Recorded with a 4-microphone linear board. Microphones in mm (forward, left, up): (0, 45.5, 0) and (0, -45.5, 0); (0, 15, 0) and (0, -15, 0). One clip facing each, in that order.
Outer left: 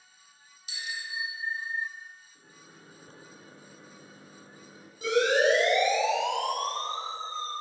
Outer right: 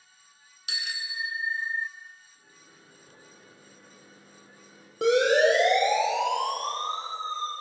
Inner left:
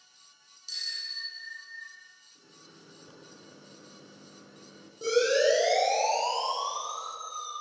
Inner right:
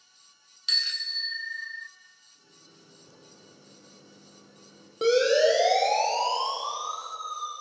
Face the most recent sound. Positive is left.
turn(degrees=-40)  # may be behind; listen again after turning